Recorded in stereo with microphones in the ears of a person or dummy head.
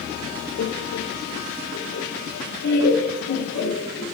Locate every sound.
0.6 s laughter: 60° left (ahead or behind), 0.6 m